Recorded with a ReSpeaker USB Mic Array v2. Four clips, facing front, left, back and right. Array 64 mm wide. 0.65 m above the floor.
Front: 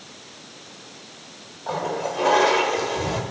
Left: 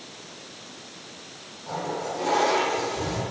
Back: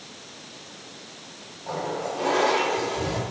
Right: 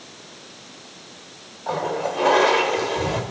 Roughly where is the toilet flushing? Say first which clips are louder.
Right 6 dB, front 3 dB; ahead right.